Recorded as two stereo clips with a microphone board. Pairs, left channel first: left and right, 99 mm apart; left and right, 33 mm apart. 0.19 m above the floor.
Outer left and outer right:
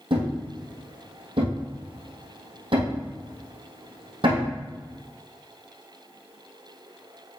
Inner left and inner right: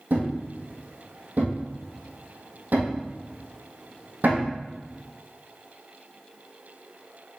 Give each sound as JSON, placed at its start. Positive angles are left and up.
{"t": 0.1, "sound": "a thud", "side_deg": -65, "distance_m": 2.5}